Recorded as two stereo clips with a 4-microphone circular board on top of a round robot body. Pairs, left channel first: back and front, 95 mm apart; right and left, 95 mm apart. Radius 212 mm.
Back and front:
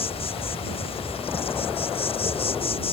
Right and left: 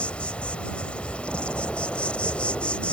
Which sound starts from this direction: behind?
An insect, at 0.0 s.